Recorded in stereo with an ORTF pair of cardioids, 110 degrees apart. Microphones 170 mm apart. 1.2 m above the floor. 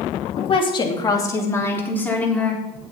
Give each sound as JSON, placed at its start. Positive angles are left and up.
{"t": 0.4, "sound": "a woman speaking", "azimuth_deg": 40, "distance_m": 2.0}